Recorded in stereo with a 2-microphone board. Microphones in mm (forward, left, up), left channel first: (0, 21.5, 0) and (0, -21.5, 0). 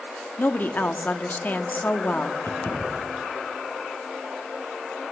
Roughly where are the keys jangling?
Left.